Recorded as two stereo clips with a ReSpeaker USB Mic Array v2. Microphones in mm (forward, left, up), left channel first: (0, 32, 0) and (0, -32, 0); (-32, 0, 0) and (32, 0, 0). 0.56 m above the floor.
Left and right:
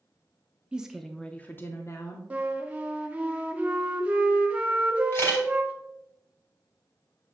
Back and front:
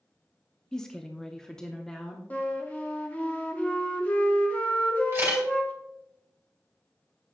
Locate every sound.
0.7 s a woman speaking: 120° right, 0.6 m; by 2.2 s 100° left, 0.9 m
2.3 s a flute: 140° right, 0.9 m
5.1 s a camera shutter: 45° left, 2.5 m